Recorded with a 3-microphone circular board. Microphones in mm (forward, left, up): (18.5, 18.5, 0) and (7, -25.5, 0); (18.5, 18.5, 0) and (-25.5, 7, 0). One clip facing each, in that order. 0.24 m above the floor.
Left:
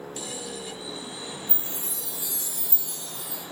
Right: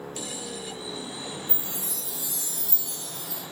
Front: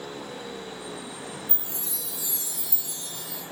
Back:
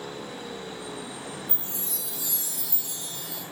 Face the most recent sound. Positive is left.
turn(degrees=105)